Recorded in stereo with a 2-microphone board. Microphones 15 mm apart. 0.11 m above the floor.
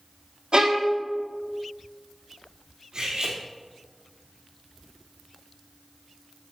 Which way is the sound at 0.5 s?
70° right (ahead or behind).